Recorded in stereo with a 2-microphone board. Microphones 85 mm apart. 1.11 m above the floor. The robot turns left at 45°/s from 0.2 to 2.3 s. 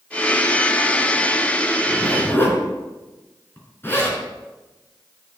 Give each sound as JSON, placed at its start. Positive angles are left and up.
{"t": 1.9, "sound": "a zipper", "side_deg": 10, "distance_m": 4.0}